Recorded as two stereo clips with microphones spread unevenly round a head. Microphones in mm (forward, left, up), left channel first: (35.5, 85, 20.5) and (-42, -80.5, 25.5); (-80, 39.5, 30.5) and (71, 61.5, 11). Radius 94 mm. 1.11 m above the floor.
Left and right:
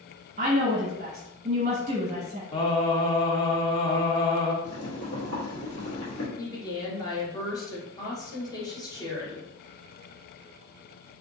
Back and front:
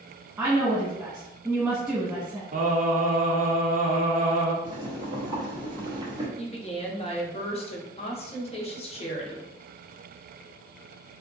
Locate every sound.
0.4 s a woman speaking: 70° right, 0.9 m
2.5 s singing: 5° left, 0.6 m
4.6 s boiling: 75° left, 1.0 m
6.4 s a woman speaking: 135° left, 0.9 m